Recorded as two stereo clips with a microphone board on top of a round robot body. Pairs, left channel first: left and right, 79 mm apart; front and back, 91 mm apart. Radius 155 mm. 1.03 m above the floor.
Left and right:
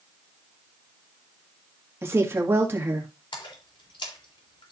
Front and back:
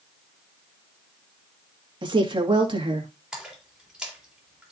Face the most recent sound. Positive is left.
turn(degrees=95)